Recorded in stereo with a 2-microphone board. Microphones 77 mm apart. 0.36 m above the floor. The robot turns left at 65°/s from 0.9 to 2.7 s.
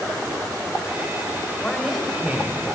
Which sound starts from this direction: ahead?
A man speaking, at 1.6 s.